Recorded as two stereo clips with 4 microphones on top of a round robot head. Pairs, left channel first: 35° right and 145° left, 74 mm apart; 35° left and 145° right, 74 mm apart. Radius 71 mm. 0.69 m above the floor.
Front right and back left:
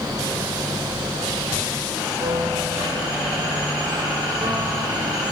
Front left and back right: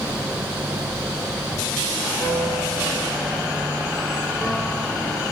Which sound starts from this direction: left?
A piano, at 2.2 s.